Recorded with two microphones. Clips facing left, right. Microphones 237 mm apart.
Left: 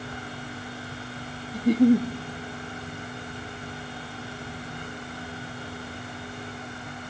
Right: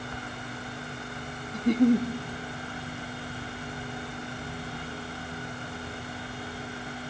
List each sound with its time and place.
1.5 s a giggle: 10° left (ahead or behind), 0.5 m